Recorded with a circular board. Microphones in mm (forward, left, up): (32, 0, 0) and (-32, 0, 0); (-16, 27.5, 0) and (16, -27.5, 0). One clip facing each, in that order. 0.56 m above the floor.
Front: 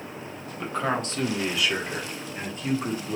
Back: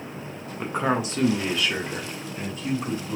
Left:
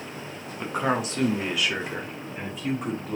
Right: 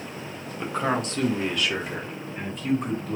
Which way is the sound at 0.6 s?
165° right.